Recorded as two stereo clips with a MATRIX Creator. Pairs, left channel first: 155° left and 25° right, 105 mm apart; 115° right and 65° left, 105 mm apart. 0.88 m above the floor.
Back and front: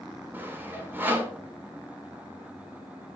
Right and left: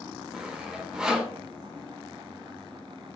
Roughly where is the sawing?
Ahead.